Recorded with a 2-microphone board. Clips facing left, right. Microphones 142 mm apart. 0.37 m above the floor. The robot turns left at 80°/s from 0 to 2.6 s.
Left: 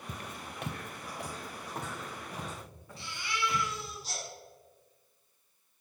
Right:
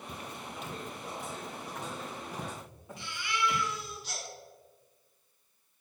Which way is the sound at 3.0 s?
40° left (ahead or behind).